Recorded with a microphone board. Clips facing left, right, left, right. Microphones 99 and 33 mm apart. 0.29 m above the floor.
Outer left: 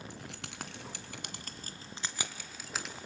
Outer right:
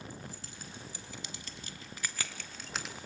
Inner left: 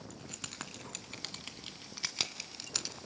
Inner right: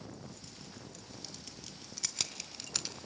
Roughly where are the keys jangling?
Left.